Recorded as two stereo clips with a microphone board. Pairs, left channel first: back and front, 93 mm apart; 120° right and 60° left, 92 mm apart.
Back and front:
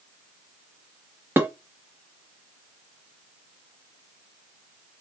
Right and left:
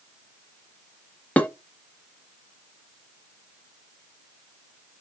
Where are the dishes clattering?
55° right, 0.9 m.